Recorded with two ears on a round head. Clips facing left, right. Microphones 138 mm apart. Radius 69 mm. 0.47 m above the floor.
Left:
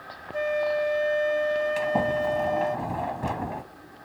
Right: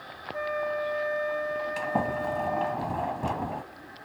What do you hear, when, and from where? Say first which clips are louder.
0.3 s a flute: left 5 dB; 35° left (ahead or behind), 0.8 m
1.8 s a sliding door: left 4 dB; 5° left (ahead or behind), 1.2 m